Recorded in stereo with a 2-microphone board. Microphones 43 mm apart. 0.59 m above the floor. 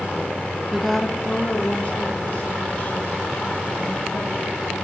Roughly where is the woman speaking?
Centre.